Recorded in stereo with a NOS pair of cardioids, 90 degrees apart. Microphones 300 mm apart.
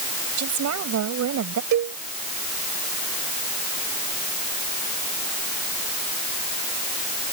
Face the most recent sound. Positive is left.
turn(degrees=-65)